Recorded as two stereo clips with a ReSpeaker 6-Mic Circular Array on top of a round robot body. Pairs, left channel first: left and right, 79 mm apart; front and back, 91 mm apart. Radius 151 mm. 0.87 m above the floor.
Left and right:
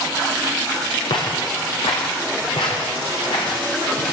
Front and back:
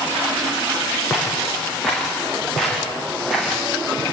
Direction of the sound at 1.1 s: 90° left.